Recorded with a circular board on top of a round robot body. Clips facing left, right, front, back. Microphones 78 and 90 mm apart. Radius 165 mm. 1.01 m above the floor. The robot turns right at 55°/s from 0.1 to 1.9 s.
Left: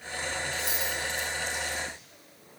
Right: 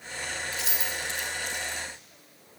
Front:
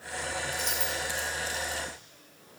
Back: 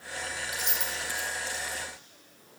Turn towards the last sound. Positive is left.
turn(degrees=-25)